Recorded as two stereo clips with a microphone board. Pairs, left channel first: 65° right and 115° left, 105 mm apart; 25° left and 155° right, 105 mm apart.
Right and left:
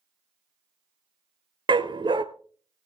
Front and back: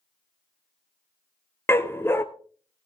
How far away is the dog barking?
About 0.7 m.